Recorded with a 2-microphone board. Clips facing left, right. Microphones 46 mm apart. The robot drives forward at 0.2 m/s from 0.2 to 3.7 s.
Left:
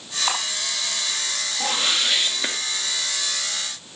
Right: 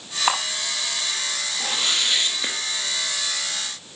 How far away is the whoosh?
About 1.5 m.